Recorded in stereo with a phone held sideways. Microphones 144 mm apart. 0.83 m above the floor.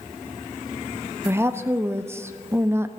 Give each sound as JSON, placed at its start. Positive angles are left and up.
{"t": 1.2, "sound": "a woman speaking", "side_deg": -15, "distance_m": 0.6}